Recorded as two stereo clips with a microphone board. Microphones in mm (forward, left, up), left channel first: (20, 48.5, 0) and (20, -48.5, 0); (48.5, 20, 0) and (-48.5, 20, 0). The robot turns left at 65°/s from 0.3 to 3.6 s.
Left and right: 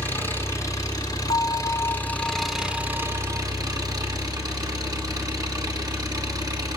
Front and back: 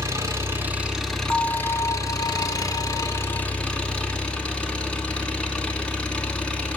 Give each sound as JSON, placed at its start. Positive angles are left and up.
{"t": 0.0, "sound": "an engine running", "azimuth_deg": 140, "distance_m": 1.4}
{"t": 1.3, "sound": "a bell", "azimuth_deg": 65, "distance_m": 1.3}